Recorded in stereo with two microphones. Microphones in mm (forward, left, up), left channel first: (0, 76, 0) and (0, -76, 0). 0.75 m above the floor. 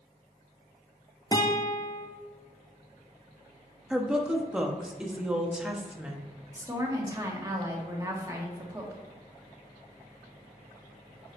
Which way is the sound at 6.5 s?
20° right (ahead or behind).